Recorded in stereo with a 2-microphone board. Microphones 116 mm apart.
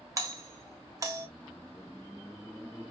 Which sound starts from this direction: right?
A doorbell, at 0.2 s.